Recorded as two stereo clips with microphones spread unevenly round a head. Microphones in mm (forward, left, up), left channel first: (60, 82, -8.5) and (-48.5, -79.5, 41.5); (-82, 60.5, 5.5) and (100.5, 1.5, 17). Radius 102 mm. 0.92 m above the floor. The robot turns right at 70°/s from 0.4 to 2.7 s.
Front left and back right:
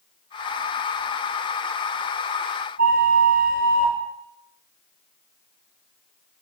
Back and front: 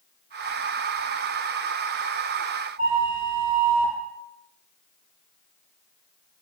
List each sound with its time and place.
2.8 s a flute: 75° right, 0.9 m